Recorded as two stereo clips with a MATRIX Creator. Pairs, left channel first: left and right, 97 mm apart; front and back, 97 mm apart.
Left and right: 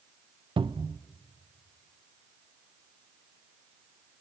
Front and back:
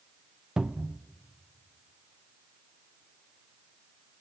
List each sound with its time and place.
0.6 s a cupboard door: 100° right, 0.5 m